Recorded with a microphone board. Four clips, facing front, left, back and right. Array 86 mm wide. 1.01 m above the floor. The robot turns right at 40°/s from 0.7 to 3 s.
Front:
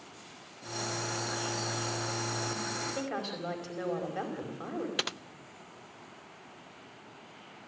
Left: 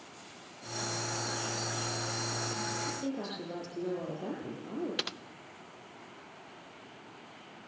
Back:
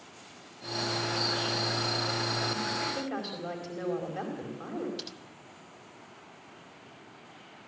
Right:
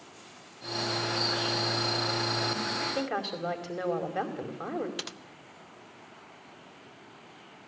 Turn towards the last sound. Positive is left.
turn(degrees=10)